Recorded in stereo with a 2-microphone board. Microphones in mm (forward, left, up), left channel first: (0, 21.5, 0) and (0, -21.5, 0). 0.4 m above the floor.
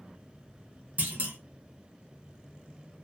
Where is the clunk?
40° right (ahead or behind), 0.7 m.